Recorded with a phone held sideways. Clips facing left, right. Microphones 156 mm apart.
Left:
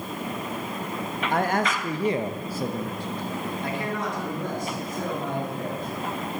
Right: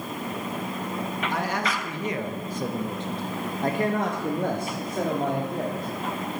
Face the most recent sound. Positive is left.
turn(degrees=-70)  # may be behind; listen again after turning